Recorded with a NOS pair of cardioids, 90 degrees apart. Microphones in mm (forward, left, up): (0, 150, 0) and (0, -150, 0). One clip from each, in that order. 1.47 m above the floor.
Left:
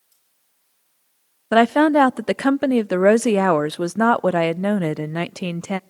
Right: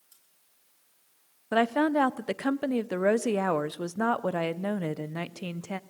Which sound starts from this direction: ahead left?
A woman speaking, at 1.5 s.